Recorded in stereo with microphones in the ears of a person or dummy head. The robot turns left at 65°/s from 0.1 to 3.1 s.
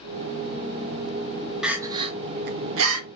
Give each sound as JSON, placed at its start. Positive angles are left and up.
{"t": 1.6, "sound": "crying", "side_deg": 0, "distance_m": 0.8}